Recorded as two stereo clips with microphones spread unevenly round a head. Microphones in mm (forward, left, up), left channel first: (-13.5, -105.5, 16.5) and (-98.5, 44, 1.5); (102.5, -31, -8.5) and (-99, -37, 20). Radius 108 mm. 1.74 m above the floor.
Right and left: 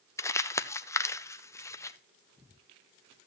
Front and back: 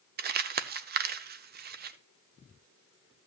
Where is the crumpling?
135° right, 0.7 m.